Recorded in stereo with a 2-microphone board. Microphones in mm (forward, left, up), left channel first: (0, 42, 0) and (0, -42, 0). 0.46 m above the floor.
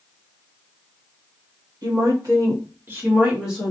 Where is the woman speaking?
50° right (ahead or behind), 1.7 m; by 3.7 s centre (ahead or behind), 1.3 m.